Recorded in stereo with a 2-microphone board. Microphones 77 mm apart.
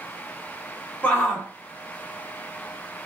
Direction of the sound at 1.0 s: 15° left (ahead or behind).